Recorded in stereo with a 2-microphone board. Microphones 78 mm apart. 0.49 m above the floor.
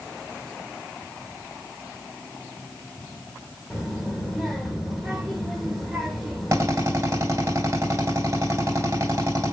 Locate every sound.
3.7 s a child speaking: 10° right (ahead or behind), 1.5 m
6.5 s a drill: 40° right (ahead or behind), 2.5 m